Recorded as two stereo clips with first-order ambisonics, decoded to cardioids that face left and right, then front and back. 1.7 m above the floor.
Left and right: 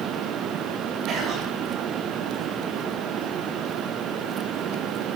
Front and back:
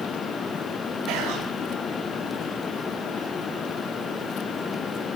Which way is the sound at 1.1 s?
145° right.